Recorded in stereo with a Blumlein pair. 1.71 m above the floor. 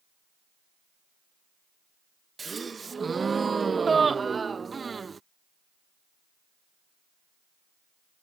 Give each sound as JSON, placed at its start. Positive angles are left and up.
{"t": 2.4, "sound": "a gasp", "azimuth_deg": -15}